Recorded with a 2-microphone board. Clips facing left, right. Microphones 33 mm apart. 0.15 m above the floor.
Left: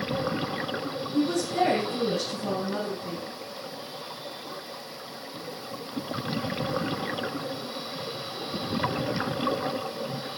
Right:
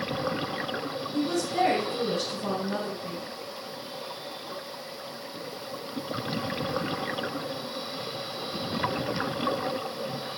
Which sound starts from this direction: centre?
A woman speaking, at 1.1 s.